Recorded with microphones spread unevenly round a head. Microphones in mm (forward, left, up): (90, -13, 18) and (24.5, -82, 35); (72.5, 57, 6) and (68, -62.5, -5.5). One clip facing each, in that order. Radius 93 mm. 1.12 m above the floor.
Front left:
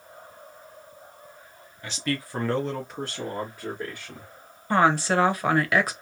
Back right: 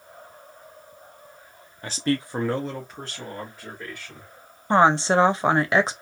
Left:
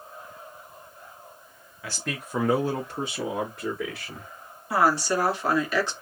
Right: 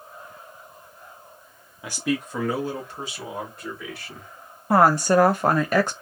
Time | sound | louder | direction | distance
1.8 | a man speaking | back right 5 dB, right 8 dB | 120° right | 0.7 m
4.7 | a woman speaking | back right 3 dB, right 6 dB | 65° right | 0.7 m